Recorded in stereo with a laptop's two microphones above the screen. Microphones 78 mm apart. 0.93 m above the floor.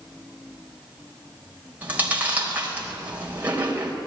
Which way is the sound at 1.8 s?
20° right (ahead or behind).